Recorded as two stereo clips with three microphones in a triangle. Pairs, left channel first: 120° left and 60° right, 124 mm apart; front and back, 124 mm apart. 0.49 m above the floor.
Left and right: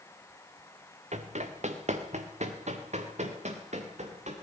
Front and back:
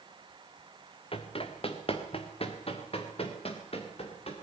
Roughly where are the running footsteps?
Ahead right.